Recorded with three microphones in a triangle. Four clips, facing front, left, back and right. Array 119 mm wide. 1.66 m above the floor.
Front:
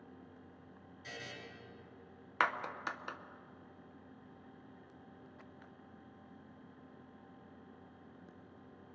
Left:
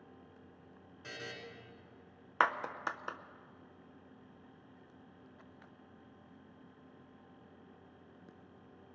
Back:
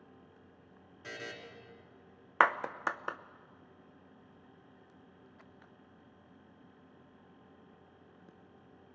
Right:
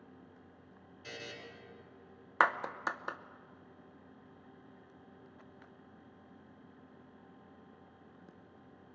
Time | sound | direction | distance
1.0 | a buzzer | 155° left | 4 m
2.4 | a clap | 170° right | 0.7 m